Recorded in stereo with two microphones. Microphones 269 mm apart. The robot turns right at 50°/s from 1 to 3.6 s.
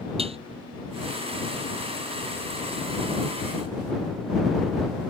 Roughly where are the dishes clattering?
Right.